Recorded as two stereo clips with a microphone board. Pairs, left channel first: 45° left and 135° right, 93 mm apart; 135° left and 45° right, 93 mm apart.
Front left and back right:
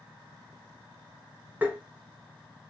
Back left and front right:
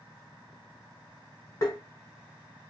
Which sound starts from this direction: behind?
Tapping, at 1.6 s.